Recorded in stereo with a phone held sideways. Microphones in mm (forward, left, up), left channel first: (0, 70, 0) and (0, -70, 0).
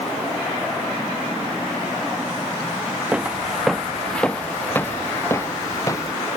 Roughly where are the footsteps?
Centre.